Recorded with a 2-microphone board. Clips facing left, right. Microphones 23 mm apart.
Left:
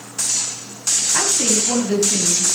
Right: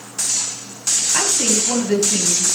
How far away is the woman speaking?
About 5.5 m.